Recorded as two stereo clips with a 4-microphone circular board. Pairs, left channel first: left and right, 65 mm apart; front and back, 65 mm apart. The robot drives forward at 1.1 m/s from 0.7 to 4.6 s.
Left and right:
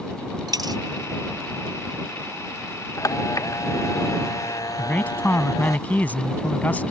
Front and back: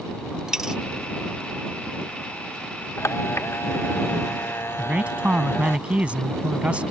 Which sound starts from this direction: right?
A dropped coin, at 0.5 s.